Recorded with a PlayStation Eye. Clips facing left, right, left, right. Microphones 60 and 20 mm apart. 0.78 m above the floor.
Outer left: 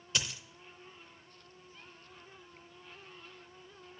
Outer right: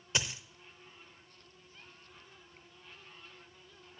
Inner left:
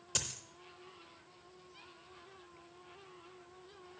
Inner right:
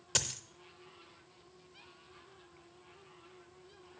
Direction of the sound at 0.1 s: 25° right (ahead or behind).